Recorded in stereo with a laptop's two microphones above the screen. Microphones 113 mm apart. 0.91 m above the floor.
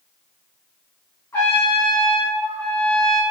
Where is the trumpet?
25° left (ahead or behind), 1.4 m.